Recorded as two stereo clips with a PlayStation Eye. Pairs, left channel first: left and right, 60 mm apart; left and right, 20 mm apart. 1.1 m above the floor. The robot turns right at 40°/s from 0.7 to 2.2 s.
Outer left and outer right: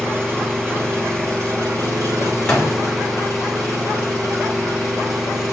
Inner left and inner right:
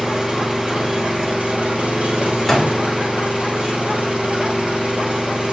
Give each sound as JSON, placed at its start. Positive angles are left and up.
{"t": 0.0, "sound": "an engine running", "azimuth_deg": -135, "distance_m": 2.0}
{"t": 2.5, "sound": "a door slam", "side_deg": 10, "distance_m": 2.5}